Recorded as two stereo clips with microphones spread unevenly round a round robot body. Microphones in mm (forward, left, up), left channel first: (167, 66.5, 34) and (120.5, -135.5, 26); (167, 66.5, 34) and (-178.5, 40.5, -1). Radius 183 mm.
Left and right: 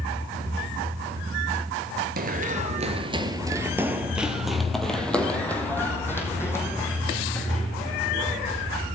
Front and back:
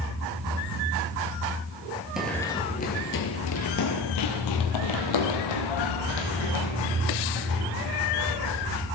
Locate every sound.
2.2 s running footsteps: 80° right, 1.0 m; by 8.7 s 5° left, 4 m